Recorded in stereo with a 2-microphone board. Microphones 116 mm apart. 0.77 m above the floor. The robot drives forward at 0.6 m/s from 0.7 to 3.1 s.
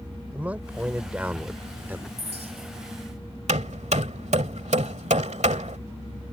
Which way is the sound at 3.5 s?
80° right.